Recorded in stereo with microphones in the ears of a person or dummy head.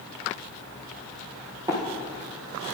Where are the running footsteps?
20° right (ahead or behind), 1.8 m.